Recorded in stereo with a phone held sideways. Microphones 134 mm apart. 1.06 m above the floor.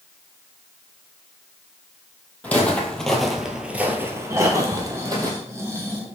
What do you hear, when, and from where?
2.4 s footsteps: 10° left (ahead or behind), 1.7 m; by 5.3 s 30° right (ahead or behind), 1.7 m
4.3 s snoring: 20° right (ahead or behind), 1.2 m